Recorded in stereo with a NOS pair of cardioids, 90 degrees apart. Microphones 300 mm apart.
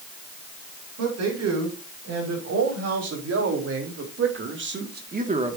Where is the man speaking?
60° right, 6.5 m; by 5.6 s 20° right, 1.6 m.